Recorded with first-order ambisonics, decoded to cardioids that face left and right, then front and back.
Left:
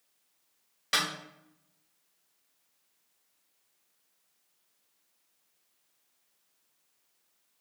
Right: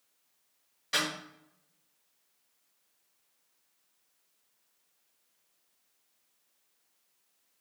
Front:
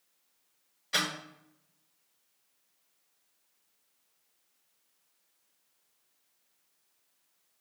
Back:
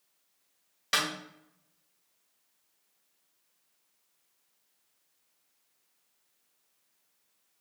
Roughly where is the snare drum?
Behind left.